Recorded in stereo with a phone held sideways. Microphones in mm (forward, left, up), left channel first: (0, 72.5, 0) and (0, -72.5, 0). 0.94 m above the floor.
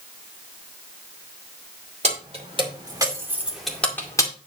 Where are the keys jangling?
50° right (ahead or behind), 3 m; by 4.3 s 25° left (ahead or behind), 2 m.